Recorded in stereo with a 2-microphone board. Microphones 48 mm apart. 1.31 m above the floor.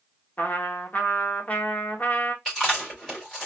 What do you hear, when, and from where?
0.4 s a trumpet: 30° left (ahead or behind), 1.0 m
2.5 s chewing: 5° left (ahead or behind), 2.5 m